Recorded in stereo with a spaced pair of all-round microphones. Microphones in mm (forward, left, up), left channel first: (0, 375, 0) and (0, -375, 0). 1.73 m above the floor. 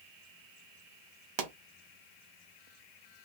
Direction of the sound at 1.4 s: 60° right (ahead or behind).